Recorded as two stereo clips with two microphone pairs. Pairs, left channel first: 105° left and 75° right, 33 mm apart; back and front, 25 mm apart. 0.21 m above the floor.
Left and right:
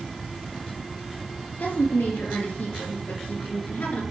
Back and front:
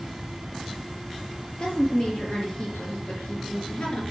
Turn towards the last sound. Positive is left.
turn(degrees=140)